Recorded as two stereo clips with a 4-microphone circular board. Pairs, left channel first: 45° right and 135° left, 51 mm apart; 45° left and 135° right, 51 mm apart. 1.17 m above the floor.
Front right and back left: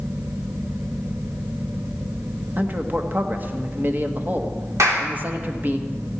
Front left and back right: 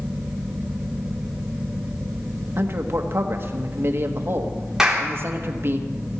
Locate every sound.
2.6 s a man speaking: 170° right, 1.2 m
4.8 s a clap: 145° left, 3 m